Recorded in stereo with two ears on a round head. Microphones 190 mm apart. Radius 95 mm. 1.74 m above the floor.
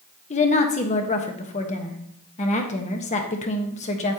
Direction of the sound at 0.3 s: 35° left (ahead or behind).